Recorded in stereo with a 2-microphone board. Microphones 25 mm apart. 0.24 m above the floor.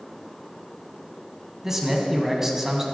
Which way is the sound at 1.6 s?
15° right (ahead or behind).